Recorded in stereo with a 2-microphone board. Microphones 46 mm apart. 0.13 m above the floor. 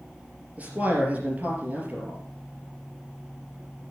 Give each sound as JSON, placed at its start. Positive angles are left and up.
{"t": 0.6, "sound": "a man speaking", "side_deg": -30, "distance_m": 3.0}